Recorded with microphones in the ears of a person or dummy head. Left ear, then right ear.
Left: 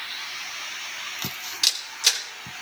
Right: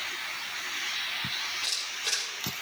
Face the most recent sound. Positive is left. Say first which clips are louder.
# left 8 dB
turn(degrees=65)  # may be behind; listen again after turning